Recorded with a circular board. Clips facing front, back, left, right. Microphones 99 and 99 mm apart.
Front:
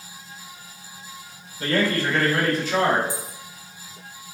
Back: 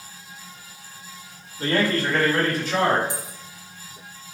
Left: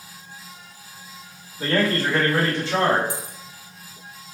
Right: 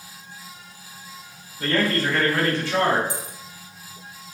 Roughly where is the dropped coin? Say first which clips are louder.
Front 1 dB, even; behind left.